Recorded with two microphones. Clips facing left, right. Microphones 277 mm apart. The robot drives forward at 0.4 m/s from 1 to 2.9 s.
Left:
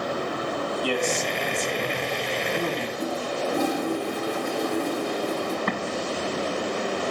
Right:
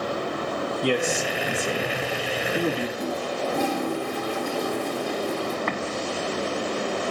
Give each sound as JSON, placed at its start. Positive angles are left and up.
{"t": 0.8, "sound": "a man speaking", "side_deg": -20, "distance_m": 2.0}
{"t": 3.0, "sound": "a toilet flushing", "side_deg": 10, "distance_m": 6.0}
{"t": 5.7, "sound": "an explosion", "side_deg": 45, "distance_m": 1.8}